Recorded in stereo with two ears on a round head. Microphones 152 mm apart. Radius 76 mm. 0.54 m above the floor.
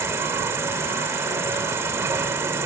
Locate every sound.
0.0 s an insect: 15° right (ahead or behind), 1.0 m